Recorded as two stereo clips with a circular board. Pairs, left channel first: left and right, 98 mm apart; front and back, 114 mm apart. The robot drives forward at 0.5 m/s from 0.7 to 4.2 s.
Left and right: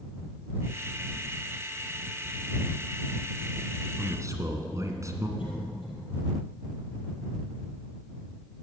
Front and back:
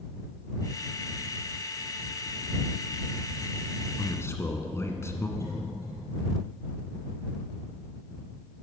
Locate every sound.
4.0 s a man speaking: 50° right, 1.6 m; by 5.3 s 55° right, 1.6 m
5.4 s a cough: 65° left, 5 m